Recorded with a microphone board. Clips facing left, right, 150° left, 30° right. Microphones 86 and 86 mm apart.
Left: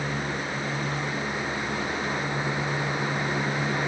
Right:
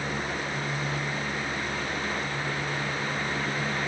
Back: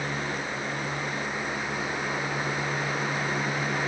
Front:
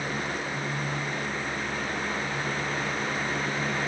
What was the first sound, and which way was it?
Only background noise.